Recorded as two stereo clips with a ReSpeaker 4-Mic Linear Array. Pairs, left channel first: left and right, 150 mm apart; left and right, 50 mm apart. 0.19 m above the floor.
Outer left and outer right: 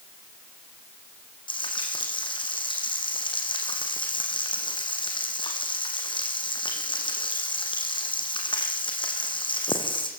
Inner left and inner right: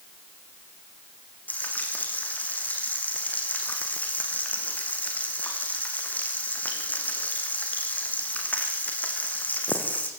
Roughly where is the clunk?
No clunk in this recording.